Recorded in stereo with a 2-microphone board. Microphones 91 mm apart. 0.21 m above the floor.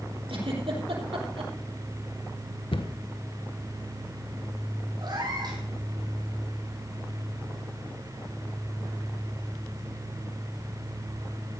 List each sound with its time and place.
0.3 s a giggle: 80° right, 4.5 m
2.7 s a cupboard door: 75° left (ahead or behind), 1.1 m
5.0 s a cat meowing: 55° right (ahead or behind), 3.5 m